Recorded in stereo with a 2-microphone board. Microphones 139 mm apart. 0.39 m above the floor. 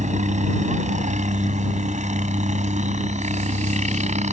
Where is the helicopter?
60° right (ahead or behind).